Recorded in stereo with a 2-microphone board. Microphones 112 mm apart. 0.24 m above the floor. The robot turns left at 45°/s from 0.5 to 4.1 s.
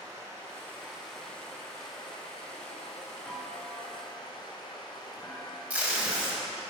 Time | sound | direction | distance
0.0 | running water | 155° right | 2 m
3.3 | a clunk | straight behind | 1.5 m
5.7 | tape being pulled | 10° right (ahead or behind) | 1.6 m